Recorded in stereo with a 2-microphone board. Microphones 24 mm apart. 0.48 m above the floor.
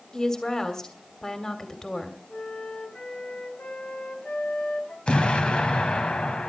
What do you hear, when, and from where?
0.1 s a woman speaking: 30° left (ahead or behind), 2.5 m
2.3 s a flute: 75° left (ahead or behind), 3 m
5.1 s an explosion: 55° left (ahead or behind), 2.0 m